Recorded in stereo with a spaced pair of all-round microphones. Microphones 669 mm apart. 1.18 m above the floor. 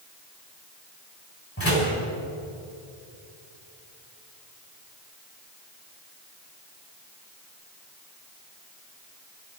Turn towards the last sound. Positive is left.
turn(degrees=20)  # may be behind; listen again after turning